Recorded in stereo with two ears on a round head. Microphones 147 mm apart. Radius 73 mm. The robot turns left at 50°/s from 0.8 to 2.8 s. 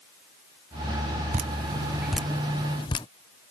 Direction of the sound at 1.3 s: 45° right (ahead or behind).